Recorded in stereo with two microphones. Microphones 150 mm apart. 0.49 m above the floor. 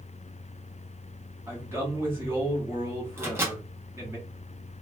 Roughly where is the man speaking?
Centre.